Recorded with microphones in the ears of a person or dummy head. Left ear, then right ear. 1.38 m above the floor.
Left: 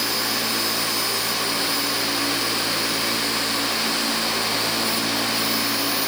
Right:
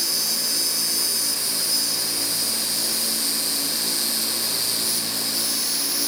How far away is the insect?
About 2 m.